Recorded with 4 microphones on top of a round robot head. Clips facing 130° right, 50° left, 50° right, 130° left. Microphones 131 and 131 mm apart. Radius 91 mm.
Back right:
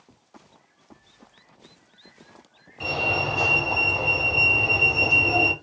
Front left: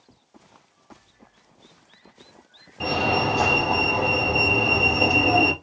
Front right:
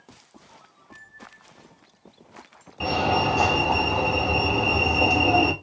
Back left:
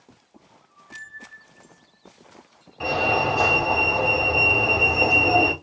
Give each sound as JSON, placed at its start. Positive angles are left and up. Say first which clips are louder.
{"t": 2.8, "sound": "a fire alarm", "louder": "front left 5 dB, even", "azimuth_deg": 20, "distance_m": 5.0}